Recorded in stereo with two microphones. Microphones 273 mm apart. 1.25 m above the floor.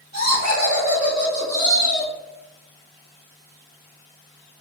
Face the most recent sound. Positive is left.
turn(degrees=40)  # may be behind; listen again after turning